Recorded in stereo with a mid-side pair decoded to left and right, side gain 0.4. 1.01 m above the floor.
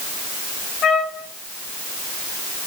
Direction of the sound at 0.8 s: 70° left.